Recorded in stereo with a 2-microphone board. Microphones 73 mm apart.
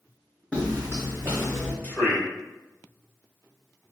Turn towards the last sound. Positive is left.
turn(degrees=25)  # may be behind; listen again after turning